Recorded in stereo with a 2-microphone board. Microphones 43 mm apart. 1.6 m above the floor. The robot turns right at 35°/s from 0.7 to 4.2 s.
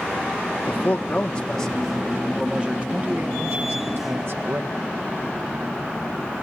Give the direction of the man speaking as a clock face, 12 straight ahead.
7 o'clock.